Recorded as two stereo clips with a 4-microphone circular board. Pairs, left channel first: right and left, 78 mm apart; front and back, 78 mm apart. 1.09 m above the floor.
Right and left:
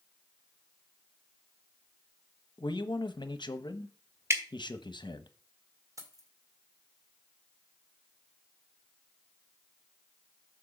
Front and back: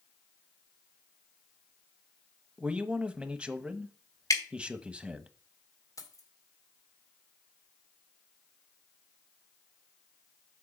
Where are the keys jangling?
45° left, 2 m.